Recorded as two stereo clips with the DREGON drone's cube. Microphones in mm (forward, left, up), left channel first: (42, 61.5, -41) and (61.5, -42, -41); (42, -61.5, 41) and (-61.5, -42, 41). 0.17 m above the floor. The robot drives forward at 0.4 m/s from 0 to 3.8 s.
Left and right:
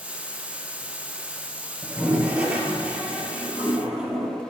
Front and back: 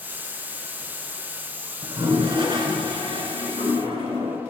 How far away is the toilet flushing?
About 1.5 m.